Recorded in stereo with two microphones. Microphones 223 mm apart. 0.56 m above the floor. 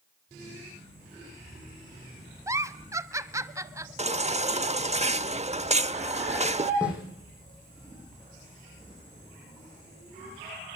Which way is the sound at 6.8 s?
5° right (ahead or behind).